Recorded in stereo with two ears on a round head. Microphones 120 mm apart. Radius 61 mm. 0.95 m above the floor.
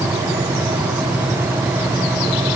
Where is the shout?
I don't hear a shout.